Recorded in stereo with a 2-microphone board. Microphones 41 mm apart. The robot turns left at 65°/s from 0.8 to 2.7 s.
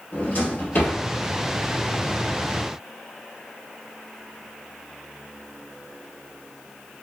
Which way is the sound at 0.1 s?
45° left (ahead or behind).